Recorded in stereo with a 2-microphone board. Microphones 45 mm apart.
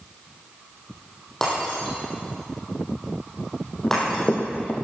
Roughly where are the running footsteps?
Left.